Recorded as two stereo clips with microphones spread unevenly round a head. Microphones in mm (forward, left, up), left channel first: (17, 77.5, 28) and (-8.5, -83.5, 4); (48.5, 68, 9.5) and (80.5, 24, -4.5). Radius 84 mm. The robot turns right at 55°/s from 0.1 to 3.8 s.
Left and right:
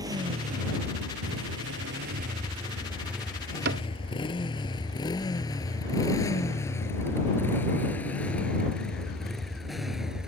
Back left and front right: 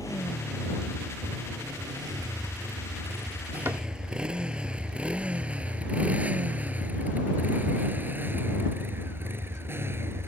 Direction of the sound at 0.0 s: 170° right.